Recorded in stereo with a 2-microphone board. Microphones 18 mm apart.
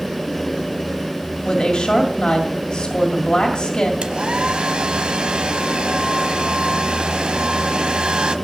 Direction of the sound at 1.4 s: 55° left (ahead or behind).